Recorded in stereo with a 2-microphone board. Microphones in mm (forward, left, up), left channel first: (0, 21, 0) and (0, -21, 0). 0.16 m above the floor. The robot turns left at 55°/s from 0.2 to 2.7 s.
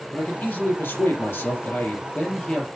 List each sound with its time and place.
0.1 s a man speaking: 140° left, 4 m; by 2.7 s 5° left, 4 m